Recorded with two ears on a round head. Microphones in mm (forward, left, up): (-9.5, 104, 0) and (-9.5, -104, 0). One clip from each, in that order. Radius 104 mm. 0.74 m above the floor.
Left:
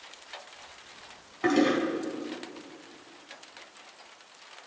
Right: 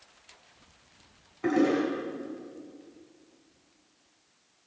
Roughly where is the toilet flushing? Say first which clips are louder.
Left 1 dB; left.